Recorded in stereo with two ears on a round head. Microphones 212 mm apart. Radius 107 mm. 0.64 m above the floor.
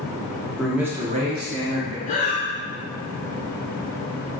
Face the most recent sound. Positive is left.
turn(degrees=30)  # may be behind; listen again after turning